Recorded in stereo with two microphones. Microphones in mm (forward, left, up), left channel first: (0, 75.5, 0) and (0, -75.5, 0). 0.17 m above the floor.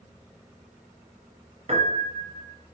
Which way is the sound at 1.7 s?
45° right (ahead or behind).